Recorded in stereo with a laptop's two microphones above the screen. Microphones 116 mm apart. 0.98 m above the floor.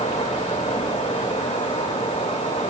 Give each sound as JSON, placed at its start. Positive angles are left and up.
{"t": 0.0, "sound": "a fan", "side_deg": 75, "distance_m": 3.5}